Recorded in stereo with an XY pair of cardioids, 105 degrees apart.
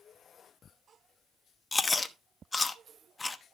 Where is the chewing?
20° left, 1.0 m.